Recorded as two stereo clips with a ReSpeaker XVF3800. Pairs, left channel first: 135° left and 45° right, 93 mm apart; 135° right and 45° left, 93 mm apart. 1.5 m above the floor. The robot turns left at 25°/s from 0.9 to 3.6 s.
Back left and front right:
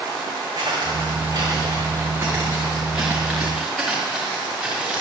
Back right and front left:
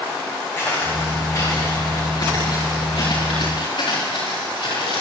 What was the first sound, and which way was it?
Footsteps, 75° right.